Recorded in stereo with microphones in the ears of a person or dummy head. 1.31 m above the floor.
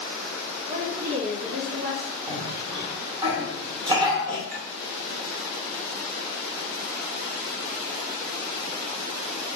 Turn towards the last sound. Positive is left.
turn(degrees=-50)  # may be behind; listen again after turning